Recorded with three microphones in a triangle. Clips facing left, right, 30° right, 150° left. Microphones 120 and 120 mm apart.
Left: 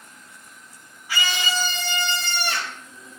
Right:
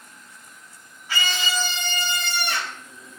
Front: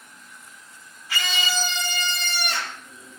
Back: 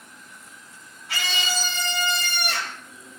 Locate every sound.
1.1 s a scream: 170° left, 3 m; by 2.8 s 150° left, 4 m